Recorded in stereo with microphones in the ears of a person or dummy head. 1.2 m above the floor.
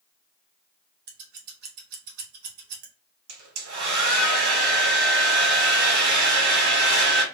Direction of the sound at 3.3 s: 65° right (ahead or behind).